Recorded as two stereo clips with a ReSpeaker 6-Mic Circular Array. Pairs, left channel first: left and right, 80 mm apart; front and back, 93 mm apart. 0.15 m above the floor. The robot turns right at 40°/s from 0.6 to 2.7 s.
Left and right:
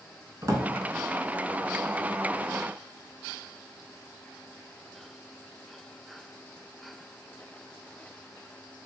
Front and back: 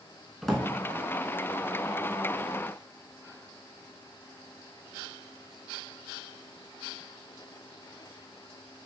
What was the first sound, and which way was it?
A drawer, 85° right.